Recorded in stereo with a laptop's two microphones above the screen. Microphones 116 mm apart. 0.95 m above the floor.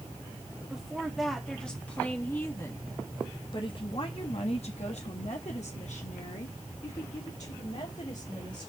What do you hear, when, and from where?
0.7 s a woman speaking: 5° right (ahead or behind), 2.0 m; by 8.7 s 75° left (ahead or behind), 3 m